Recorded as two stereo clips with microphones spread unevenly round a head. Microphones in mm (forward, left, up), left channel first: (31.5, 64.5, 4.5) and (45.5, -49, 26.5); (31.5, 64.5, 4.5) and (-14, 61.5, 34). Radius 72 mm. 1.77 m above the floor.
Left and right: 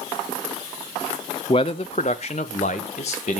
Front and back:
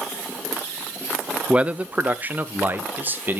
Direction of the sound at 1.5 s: 160° left.